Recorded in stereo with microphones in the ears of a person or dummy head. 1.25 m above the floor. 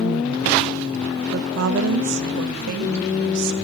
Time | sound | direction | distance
1.3 | a woman speaking | 60° right (ahead or behind) | 1.2 m